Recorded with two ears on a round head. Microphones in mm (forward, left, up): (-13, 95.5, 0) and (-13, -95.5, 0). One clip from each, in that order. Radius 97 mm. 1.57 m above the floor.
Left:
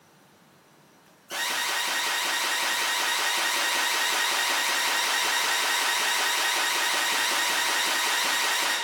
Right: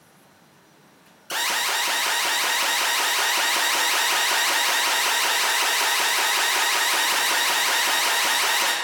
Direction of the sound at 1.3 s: 50° right (ahead or behind).